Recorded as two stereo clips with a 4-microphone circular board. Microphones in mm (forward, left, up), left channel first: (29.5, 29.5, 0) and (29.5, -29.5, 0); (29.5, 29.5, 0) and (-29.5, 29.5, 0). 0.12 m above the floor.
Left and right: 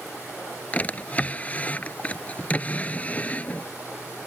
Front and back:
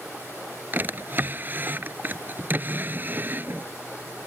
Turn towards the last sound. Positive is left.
turn(degrees=145)